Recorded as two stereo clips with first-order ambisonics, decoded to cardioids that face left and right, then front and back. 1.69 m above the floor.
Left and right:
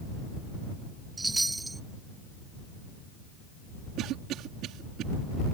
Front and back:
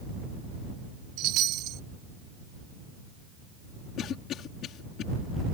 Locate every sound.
1.2 s a chime: 170° right
4.0 s a cough: 50° right